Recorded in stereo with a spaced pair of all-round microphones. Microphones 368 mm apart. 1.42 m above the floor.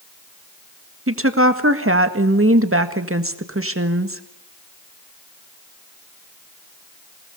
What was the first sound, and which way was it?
A woman speaking, 35° right (ahead or behind).